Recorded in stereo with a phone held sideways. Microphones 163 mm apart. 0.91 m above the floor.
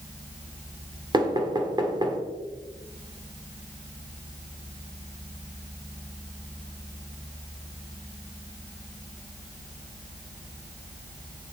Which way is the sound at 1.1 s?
25° right (ahead or behind).